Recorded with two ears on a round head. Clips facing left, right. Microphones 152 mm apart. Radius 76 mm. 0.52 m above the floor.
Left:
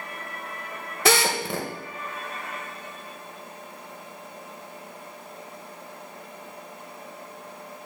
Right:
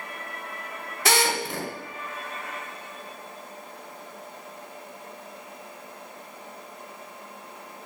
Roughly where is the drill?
Left.